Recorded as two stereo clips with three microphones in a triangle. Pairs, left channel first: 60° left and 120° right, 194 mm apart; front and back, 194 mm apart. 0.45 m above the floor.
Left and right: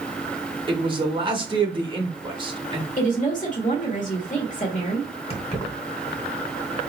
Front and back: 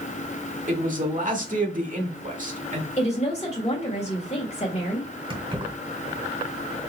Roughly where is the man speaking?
Behind.